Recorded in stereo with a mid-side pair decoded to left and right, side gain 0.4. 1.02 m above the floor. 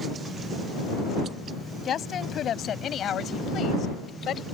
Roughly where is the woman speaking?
Ahead left.